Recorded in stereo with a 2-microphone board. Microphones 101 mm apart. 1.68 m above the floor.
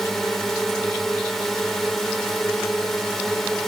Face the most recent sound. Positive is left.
turn(degrees=5)  # may be behind; listen again after turning